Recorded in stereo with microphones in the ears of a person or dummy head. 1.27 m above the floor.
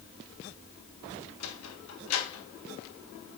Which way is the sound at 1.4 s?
75° left (ahead or behind).